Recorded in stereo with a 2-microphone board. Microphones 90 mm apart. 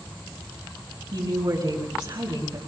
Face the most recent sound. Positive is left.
turn(degrees=-60)  # may be behind; listen again after turning